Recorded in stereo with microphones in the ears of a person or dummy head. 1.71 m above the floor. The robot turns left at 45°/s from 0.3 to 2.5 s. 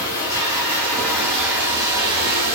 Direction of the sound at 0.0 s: 35° left.